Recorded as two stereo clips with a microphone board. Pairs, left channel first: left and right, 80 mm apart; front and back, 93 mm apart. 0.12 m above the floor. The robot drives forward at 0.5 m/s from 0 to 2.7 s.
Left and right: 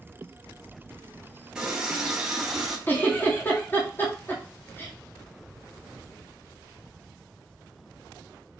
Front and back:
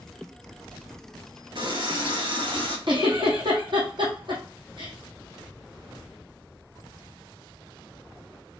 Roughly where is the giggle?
Behind left.